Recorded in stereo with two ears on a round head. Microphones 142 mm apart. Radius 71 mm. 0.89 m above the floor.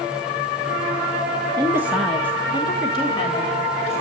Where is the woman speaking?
30° right (ahead or behind), 1.1 m; by 4.0 s 40° left (ahead or behind), 3.5 m.